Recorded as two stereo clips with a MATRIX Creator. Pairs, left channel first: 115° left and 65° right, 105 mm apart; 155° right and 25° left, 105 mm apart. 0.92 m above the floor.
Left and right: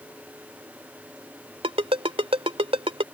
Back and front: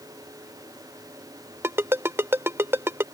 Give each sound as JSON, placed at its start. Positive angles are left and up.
{"t": 1.6, "sound": "a ringtone", "azimuth_deg": -45}